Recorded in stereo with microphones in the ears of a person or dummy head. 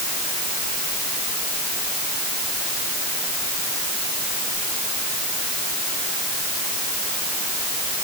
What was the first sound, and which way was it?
Only background noise.